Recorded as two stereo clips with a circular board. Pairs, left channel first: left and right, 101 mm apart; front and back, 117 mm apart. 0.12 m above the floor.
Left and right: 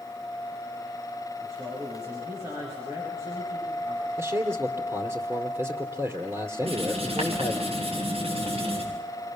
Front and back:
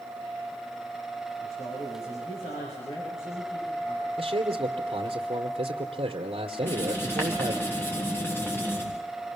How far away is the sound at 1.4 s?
About 9.5 m.